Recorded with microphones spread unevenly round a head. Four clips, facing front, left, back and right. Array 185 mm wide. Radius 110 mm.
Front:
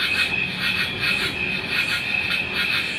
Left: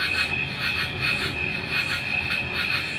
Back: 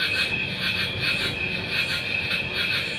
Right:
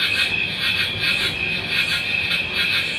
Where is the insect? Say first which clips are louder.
Right 3 dB, front 2 dB; 60° left, 2 m.